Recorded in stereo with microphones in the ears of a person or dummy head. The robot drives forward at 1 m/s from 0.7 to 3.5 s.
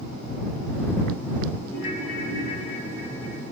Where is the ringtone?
65° left (ahead or behind), 5.5 m; by 3.4 s 55° left (ahead or behind), 6.5 m.